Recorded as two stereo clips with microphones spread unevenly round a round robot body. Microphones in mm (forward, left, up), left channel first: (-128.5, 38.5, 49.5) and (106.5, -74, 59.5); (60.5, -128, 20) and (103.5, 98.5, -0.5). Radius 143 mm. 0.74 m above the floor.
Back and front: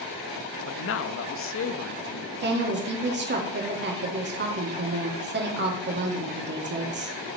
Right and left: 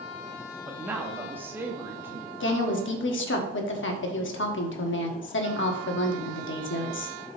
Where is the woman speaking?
70° right, 1.6 m.